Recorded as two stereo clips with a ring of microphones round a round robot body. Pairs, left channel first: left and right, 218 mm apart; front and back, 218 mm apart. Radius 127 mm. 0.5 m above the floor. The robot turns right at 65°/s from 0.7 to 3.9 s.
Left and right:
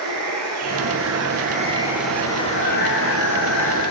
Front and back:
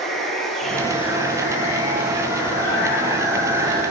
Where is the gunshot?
I don't hear a gunshot.